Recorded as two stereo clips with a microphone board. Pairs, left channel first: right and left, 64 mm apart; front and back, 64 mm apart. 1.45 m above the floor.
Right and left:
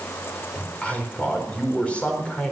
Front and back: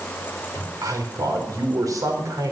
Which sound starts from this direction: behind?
A man speaking, at 0.6 s.